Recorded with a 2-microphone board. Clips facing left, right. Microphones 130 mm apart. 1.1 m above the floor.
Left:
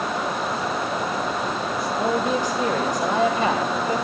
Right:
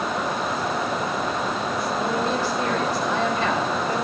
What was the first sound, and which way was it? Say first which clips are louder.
A man speaking: left 3 dB; 15° left (ahead or behind).